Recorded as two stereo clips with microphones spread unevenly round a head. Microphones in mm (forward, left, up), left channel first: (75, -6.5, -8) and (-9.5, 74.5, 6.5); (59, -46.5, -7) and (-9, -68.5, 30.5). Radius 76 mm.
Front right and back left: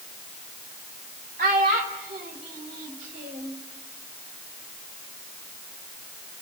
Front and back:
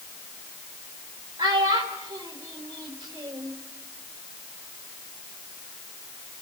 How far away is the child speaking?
About 3 m.